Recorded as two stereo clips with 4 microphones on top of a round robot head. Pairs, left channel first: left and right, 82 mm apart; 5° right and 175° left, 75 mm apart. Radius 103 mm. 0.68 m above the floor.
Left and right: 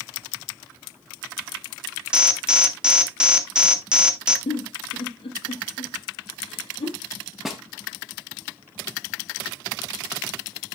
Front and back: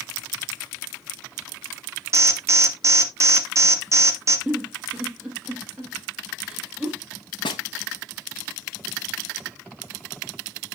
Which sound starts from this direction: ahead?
A snare drum, at 7.5 s.